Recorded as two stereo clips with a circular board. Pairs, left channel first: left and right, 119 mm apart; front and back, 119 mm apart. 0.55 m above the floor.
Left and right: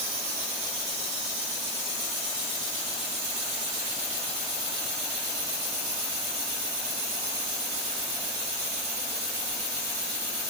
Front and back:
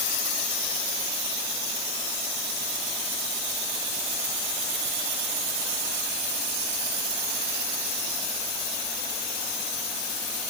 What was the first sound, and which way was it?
Only background noise.